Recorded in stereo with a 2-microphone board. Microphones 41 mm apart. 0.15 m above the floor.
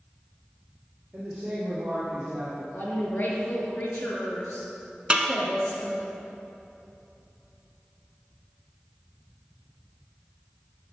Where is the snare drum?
25° right (ahead or behind), 0.9 m.